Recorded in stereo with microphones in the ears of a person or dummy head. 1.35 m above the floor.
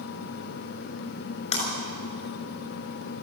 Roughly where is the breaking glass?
Left.